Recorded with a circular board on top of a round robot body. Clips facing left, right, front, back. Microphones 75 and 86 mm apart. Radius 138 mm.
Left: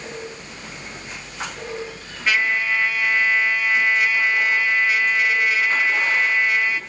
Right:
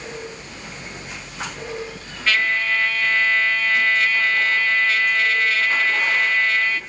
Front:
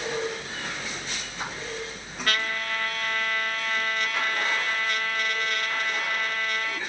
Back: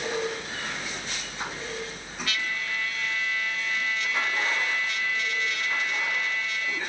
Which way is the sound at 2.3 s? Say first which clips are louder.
Even, front 4 dB; 20° left.